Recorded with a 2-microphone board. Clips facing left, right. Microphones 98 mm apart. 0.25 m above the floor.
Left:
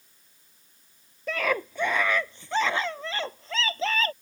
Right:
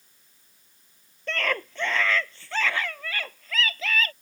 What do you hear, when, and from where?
1.3 s a scream: 5° left (ahead or behind); by 4.1 s 35° left (ahead or behind)